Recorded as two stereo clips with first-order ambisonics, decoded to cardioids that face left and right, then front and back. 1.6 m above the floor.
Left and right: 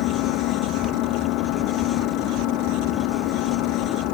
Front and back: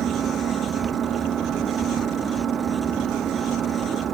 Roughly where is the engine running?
Behind left.